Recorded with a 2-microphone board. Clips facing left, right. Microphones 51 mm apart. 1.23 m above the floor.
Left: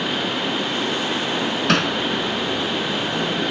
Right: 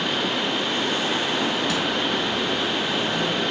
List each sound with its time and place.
1.7 s hammering: 75° left (ahead or behind)